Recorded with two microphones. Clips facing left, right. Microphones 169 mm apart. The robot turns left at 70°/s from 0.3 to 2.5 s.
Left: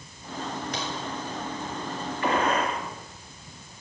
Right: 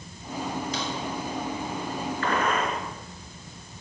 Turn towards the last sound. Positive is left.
turn(degrees=35)  # may be behind; listen again after turning